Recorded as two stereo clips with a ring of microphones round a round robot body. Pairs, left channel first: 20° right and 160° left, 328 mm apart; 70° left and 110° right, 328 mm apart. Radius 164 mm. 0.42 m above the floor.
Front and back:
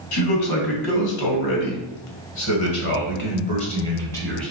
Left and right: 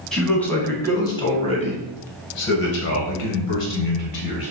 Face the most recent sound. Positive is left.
turn(degrees=65)